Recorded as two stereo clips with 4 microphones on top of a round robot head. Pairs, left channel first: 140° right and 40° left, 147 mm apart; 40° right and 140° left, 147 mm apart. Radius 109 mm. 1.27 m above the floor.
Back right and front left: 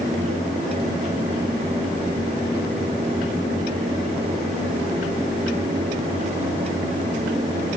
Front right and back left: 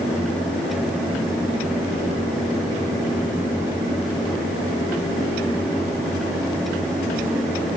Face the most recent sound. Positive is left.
No sound to turn to.